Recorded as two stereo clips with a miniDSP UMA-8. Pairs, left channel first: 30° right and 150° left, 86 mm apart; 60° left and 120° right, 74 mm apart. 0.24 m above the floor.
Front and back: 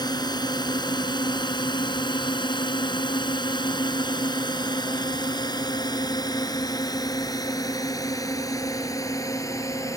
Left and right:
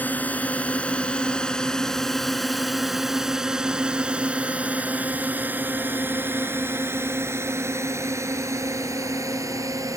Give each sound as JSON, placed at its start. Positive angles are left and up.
{"t": 0.0, "sound": "a drone", "azimuth_deg": -5}